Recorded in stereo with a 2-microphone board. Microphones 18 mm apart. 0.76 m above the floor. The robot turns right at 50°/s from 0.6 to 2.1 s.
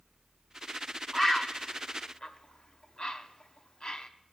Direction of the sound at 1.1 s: 5° left (ahead or behind).